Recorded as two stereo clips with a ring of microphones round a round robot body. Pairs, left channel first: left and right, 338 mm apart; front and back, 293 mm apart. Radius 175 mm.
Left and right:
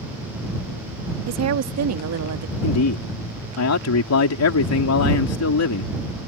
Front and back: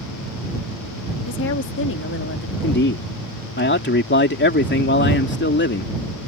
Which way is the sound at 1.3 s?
50° right.